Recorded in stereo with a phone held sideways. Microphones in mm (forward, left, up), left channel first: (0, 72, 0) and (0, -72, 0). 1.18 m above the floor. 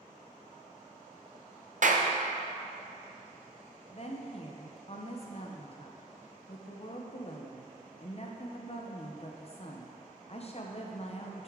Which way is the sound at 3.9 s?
45° left (ahead or behind).